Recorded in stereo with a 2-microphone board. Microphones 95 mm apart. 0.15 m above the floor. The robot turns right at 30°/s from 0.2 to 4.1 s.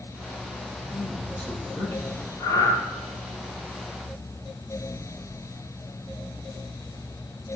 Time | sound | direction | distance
0.8 | a man speaking | 5° right | 3 m
2.4 | breathing | 35° left (ahead or behind) | 2.5 m